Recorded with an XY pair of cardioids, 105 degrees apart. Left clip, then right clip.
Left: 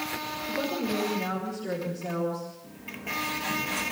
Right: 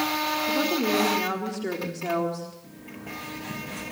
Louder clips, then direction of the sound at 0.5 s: Right 3 dB; 65° right.